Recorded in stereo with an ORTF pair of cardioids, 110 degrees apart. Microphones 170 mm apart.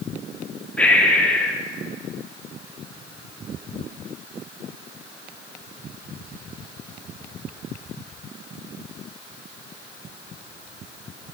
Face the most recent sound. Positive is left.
turn(degrees=10)